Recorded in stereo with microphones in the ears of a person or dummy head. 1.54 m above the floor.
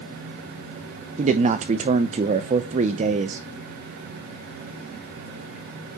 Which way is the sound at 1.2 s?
30° right (ahead or behind).